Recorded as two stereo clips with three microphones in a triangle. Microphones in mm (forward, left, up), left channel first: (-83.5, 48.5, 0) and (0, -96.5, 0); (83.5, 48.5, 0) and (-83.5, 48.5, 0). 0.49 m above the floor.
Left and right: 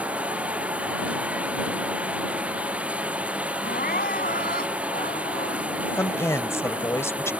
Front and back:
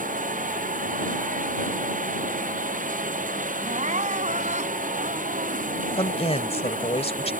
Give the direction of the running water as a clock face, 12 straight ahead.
5 o'clock.